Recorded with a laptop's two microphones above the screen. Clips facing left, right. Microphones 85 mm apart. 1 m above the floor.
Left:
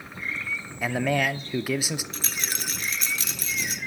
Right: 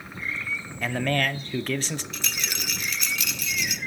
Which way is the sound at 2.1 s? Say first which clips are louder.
Even; 40° left (ahead or behind).